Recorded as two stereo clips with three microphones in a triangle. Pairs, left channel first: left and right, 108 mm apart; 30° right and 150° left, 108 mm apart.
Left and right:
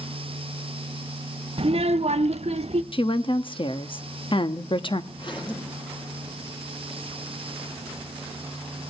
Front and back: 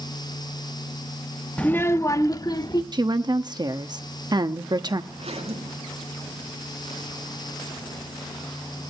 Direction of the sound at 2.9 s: 110° left.